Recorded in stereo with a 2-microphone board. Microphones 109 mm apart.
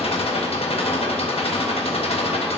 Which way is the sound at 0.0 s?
65° left (ahead or behind).